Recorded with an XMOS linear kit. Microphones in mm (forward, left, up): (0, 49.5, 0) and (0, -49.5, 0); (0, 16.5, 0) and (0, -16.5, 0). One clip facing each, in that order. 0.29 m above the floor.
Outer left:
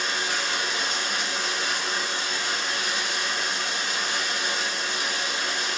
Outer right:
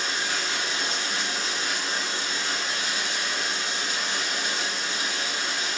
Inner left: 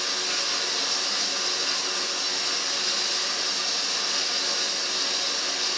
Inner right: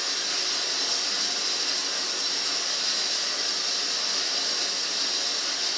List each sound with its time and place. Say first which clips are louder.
0.0 s running water: outer left 1 dB, inner left 2 dB; 60° left (ahead or behind), 1.2 m